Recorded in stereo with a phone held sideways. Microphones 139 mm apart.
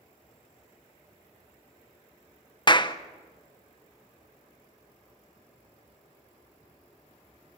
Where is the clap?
35° left (ahead or behind), 0.7 m.